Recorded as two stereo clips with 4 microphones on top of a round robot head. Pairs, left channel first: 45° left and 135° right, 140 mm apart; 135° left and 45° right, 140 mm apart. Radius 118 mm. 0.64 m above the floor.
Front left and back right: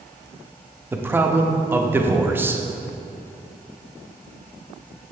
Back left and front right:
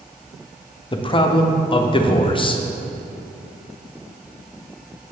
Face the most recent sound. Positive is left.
turn(degrees=155)